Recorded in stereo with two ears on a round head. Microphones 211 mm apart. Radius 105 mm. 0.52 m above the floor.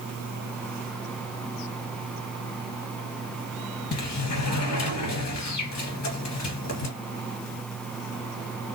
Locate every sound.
3.9 s a sliding door: 80° left, 2 m